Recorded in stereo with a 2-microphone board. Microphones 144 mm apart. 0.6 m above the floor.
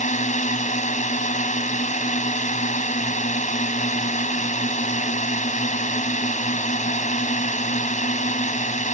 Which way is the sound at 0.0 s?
60° left (ahead or behind).